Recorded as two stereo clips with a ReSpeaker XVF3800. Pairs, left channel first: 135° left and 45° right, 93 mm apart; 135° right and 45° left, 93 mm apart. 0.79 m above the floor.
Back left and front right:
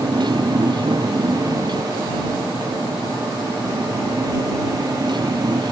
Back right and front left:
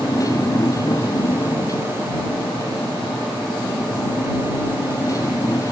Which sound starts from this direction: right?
A motorcycle, at 0.0 s.